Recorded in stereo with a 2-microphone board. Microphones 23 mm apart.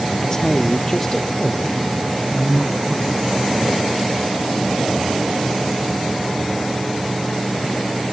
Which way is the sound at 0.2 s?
25° left (ahead or behind).